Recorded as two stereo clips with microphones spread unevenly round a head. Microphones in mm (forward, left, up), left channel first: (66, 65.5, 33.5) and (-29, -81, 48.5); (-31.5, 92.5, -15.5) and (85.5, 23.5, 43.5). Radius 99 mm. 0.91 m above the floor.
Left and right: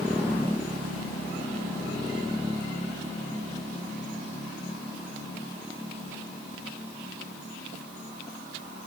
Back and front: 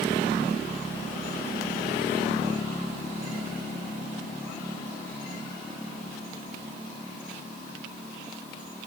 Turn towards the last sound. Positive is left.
No sound to turn to.